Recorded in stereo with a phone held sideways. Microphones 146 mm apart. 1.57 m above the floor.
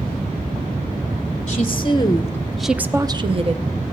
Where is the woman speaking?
45° left (ahead or behind), 0.9 m; by 3.7 s 50° right (ahead or behind), 0.8 m.